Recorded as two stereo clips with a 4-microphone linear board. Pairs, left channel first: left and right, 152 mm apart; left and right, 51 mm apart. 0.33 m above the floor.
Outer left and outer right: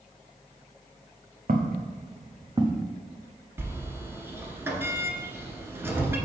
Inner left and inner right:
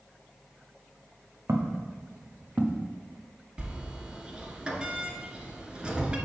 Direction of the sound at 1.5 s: 60° right (ahead or behind).